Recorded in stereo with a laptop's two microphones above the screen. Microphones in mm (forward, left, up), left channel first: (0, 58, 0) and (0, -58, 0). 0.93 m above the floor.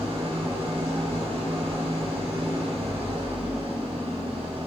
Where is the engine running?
55° right (ahead or behind), 6.5 m.